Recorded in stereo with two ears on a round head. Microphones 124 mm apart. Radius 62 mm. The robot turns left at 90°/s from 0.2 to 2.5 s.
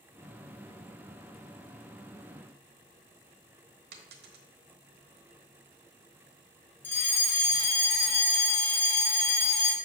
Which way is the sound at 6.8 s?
15° left (ahead or behind).